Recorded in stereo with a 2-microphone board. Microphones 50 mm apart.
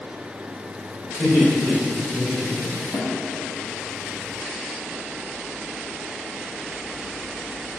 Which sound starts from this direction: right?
Laughter, at 1.2 s.